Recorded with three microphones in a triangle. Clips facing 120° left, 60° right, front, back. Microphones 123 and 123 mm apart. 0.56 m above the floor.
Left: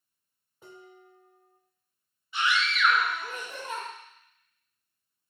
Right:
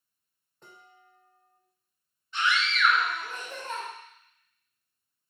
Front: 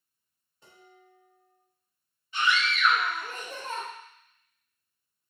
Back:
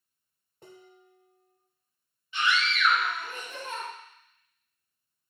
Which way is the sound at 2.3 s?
40° left.